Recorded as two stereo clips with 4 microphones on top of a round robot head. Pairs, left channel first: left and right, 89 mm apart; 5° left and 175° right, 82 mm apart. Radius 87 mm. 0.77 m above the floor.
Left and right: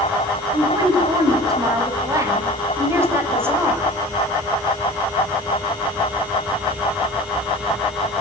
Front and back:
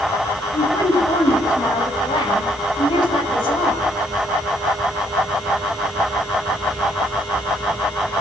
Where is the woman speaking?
45° right, 7.5 m; by 3.9 s 20° right, 5.5 m.